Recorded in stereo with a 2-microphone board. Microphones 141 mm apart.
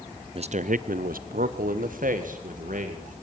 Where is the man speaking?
45° right (ahead or behind), 0.6 m; by 3.2 s 65° right (ahead or behind), 3 m.